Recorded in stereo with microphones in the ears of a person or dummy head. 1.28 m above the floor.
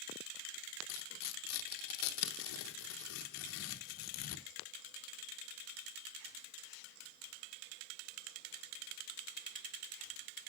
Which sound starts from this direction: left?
Tearing paper, at 0.9 s.